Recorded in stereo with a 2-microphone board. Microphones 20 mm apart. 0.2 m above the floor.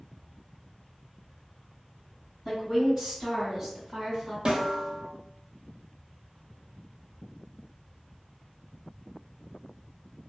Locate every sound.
2.5 s a woman speaking: 10° right (ahead or behind), 1.9 m; by 4.3 s 30° right (ahead or behind), 1.7 m
4.5 s a snare drum: 50° right (ahead or behind), 1.0 m